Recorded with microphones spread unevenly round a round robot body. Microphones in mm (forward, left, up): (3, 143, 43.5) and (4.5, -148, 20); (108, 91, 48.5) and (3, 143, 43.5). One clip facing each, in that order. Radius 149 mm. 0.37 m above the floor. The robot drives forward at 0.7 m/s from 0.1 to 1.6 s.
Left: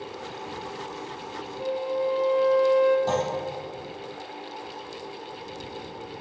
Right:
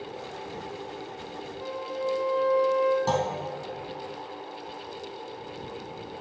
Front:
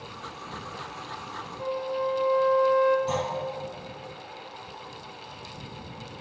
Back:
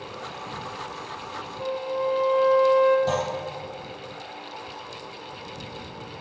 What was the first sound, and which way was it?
A flute, 70° left.